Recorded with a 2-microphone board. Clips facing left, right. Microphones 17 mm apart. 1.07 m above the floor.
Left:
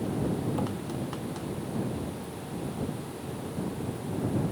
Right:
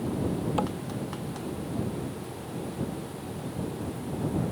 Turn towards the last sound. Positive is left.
turn(degrees=-50)  # may be behind; listen again after turning